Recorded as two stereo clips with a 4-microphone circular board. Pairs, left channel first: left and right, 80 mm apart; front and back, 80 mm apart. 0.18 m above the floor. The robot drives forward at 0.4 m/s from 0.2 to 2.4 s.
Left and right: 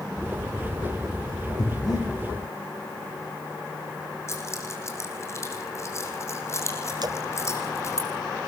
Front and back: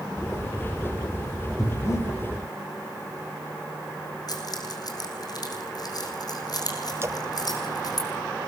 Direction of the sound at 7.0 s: 120° right.